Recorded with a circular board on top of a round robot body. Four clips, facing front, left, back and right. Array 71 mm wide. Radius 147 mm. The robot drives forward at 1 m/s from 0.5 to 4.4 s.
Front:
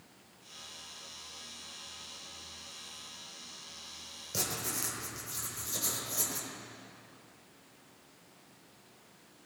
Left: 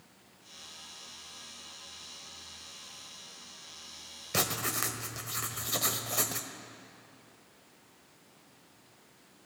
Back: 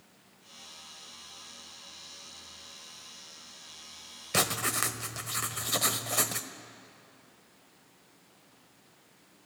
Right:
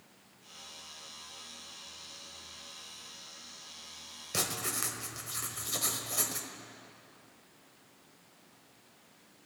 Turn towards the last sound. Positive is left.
turn(degrees=165)